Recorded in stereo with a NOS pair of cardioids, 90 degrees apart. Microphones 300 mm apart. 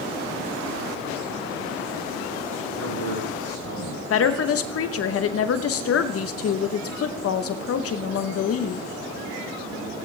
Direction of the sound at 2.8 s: 60° right.